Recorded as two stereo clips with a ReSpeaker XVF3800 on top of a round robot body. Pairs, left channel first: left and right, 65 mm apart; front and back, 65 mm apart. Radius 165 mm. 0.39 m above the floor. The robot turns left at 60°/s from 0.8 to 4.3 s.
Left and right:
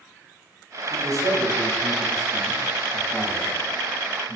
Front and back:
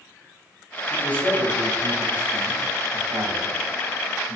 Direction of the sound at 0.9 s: 40° right.